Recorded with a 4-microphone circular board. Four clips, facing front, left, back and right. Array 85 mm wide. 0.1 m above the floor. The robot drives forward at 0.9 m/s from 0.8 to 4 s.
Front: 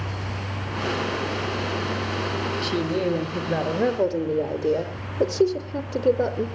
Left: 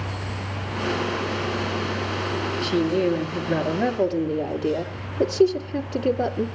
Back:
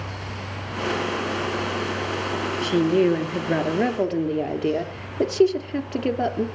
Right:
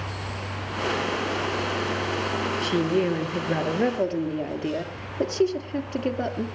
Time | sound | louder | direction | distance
2.6 | a woman speaking | left 2 dB, back 7 dB | 155° right | 1.2 m